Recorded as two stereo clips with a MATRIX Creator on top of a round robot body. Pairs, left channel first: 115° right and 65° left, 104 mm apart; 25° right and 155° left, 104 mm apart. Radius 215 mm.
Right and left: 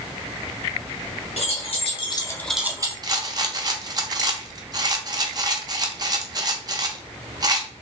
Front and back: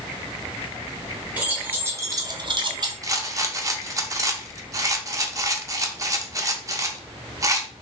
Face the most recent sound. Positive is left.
turn(degrees=105)